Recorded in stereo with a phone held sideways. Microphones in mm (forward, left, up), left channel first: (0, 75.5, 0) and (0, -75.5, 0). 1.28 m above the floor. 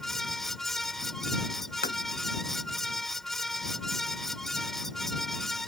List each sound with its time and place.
0.0 s a fan: centre (ahead or behind)
1.8 s tapping: 75° left (ahead or behind)